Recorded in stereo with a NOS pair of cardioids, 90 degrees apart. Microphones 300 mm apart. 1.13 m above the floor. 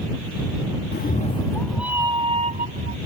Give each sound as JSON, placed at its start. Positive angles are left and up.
{"t": 0.9, "sound": "a cat meowing", "azimuth_deg": 40}